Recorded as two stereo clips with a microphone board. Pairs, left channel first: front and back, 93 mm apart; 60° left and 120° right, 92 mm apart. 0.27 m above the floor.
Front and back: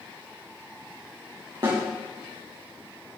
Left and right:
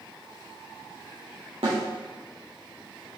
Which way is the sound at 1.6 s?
135° right.